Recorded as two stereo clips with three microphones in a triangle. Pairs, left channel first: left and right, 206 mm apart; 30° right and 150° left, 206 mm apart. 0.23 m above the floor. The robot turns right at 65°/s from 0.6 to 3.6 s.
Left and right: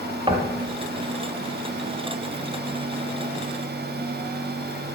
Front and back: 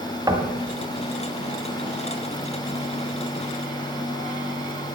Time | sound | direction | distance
0.3 | knocking | 145° right | 1.6 m